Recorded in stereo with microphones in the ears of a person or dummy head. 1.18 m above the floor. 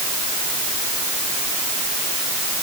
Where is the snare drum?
No snare drum in this recording.